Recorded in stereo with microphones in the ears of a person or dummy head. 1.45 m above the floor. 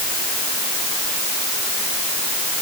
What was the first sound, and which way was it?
Only background noise.